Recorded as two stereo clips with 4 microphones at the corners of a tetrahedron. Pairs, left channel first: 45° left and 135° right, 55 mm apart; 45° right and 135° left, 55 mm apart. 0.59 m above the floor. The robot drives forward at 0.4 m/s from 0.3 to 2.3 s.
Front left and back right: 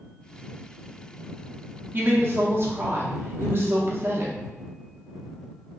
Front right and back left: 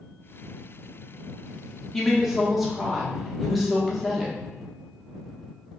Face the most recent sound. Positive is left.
turn(degrees=-140)